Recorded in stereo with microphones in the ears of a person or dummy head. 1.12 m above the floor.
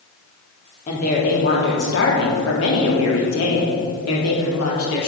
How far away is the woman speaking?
About 3 m.